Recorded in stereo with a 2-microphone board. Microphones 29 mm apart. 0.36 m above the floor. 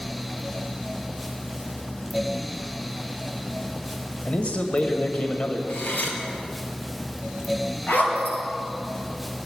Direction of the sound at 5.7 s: 75° left (ahead or behind).